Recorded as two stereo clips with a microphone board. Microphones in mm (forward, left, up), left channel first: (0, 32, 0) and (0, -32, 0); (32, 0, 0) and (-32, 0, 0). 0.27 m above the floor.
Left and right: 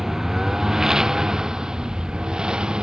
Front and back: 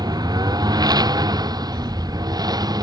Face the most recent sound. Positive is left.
turn(degrees=-170)